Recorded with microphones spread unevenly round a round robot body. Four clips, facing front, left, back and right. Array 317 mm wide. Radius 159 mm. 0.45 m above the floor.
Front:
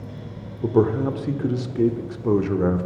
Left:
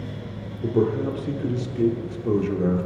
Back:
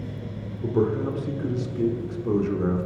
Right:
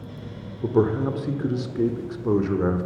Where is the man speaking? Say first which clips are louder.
Right 1 dB, front 4 dB; 15° right, 1.0 m.